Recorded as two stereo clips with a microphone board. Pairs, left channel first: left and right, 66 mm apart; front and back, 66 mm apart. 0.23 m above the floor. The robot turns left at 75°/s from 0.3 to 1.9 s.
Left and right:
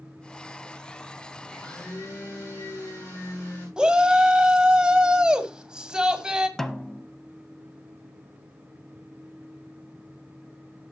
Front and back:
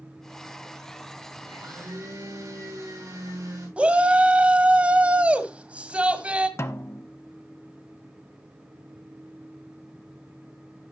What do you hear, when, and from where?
1.4 s a blender: straight behind, 8 m; by 3.7 s 145° left, 8 m
3.8 s a shout: 145° right, 1.6 m
6.6 s a snare drum: 10° left, 1.0 m